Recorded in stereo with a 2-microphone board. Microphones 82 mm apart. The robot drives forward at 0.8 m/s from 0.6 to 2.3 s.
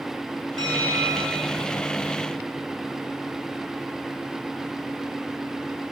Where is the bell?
60° right (ahead or behind), 1.9 m; by 1.6 s 45° right (ahead or behind), 2.5 m.